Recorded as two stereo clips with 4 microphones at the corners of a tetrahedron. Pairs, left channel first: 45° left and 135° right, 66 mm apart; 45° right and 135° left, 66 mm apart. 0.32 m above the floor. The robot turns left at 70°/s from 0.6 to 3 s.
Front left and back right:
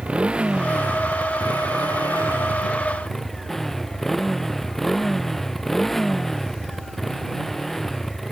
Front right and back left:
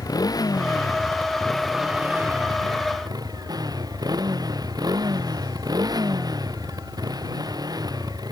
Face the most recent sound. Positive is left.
turn(degrees=130)